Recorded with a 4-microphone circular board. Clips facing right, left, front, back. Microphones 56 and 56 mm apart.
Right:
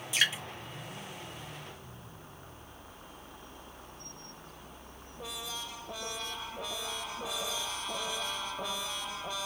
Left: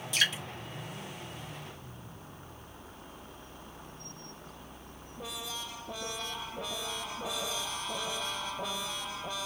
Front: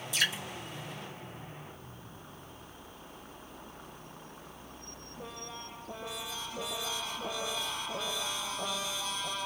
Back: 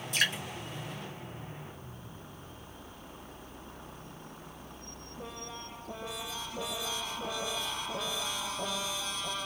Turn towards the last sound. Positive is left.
turn(degrees=-165)